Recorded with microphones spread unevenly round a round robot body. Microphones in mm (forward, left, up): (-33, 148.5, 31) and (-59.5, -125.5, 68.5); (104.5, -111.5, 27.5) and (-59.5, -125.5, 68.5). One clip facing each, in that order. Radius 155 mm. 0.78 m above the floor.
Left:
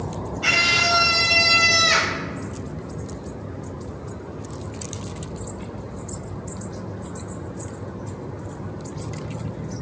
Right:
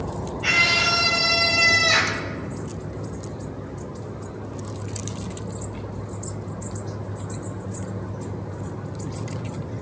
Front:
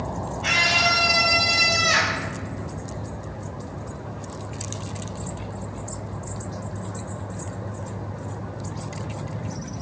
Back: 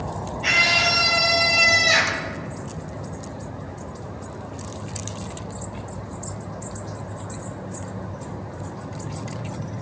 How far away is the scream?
About 5.5 m.